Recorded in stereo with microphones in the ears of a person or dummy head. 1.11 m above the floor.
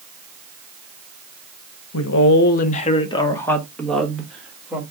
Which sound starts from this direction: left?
A woman speaking, at 1.9 s.